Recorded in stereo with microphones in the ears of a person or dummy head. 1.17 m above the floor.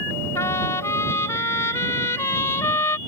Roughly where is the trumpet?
Centre.